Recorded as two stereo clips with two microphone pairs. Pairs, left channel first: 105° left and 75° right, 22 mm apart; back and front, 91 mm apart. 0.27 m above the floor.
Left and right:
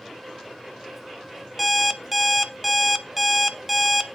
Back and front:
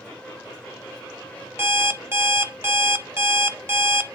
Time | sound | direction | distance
1.6 | an alarm clock | 10° left | 0.6 m